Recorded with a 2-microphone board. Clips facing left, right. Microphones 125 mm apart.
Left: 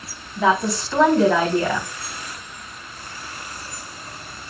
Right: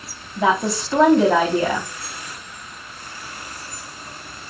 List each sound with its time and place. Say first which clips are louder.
0.4 s a woman speaking: even; 20° right (ahead or behind), 4 m